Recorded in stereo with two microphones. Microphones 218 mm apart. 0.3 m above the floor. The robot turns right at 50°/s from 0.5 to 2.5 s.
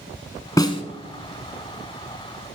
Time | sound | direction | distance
0.6 | a snare drum | 15° left (ahead or behind) | 1.3 m